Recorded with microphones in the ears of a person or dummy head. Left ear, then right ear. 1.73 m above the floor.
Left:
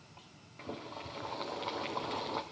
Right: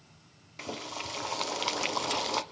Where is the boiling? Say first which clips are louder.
Right 6 dB; 85° right, 1.3 m.